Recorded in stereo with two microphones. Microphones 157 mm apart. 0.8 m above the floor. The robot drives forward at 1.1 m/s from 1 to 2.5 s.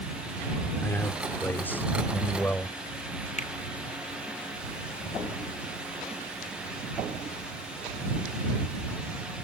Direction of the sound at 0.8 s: 15° left (ahead or behind).